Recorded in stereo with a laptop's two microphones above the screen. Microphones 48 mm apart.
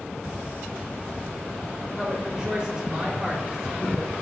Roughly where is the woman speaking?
Right.